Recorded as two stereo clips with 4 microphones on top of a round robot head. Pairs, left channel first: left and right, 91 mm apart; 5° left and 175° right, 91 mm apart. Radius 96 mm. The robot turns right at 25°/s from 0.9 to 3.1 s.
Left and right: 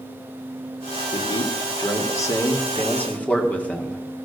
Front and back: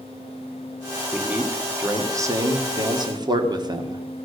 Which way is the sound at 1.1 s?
115° left.